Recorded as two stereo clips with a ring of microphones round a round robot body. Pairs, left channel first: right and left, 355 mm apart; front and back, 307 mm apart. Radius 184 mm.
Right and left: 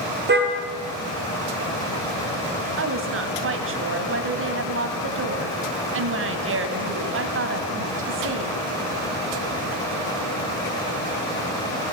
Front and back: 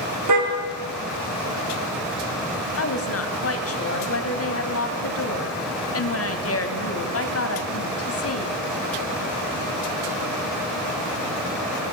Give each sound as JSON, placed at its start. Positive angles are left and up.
{"t": 0.3, "sound": "a car horn", "azimuth_deg": 155, "distance_m": 3.5}
{"t": 2.8, "sound": "a woman speaking", "azimuth_deg": 40, "distance_m": 3.0}